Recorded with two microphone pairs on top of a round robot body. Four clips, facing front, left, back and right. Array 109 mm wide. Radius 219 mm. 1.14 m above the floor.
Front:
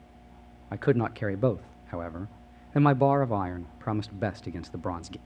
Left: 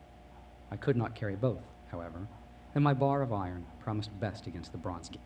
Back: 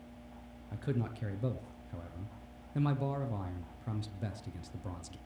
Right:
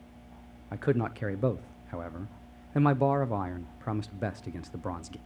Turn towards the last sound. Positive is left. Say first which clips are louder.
# right 3 dB, front 12 dB
turn(degrees=-15)